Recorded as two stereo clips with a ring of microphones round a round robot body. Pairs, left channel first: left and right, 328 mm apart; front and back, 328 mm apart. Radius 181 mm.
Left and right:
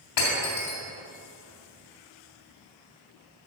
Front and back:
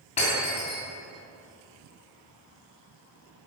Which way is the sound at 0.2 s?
70° left.